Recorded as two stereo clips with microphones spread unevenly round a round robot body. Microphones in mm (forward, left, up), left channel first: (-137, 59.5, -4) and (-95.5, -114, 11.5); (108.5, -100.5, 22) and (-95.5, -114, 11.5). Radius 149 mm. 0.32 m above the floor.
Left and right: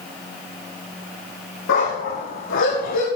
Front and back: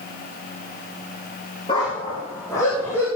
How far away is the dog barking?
About 6 m.